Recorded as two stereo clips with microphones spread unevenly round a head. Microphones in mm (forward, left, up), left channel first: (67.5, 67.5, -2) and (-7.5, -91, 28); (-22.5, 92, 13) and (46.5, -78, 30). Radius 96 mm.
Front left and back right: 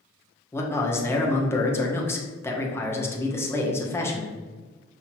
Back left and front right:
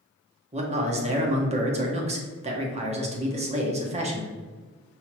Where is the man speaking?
10° right, 1.0 m.